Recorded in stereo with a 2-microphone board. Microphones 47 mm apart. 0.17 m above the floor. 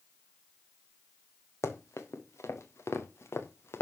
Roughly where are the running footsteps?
Left.